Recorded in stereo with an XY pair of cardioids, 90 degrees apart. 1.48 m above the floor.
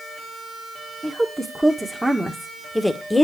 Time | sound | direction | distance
1.0 | a woman speaking | 20° right | 1.9 m